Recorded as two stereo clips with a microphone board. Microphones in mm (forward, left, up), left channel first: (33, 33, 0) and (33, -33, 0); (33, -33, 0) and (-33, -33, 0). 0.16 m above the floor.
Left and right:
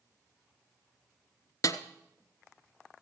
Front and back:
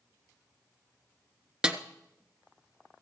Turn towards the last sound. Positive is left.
turn(degrees=105)